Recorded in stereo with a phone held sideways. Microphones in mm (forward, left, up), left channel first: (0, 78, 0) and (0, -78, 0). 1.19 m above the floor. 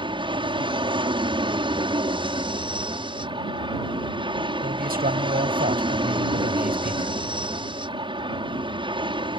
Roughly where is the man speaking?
Right.